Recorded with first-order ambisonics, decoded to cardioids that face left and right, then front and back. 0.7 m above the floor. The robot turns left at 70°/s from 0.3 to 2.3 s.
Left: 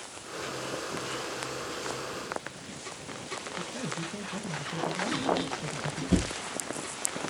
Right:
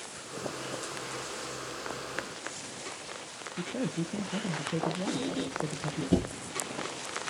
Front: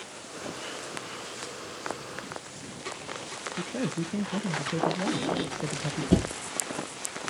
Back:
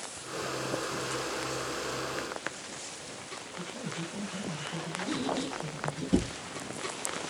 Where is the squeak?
Straight ahead, 3 m.